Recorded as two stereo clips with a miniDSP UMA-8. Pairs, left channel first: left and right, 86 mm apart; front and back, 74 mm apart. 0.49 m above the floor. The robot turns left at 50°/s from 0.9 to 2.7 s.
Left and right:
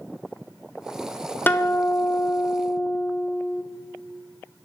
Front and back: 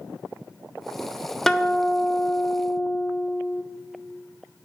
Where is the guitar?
80° left, 0.5 m; by 3.6 s 15° left, 0.5 m.